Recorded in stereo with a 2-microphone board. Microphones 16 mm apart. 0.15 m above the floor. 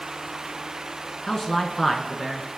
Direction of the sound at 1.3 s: 35° left (ahead or behind).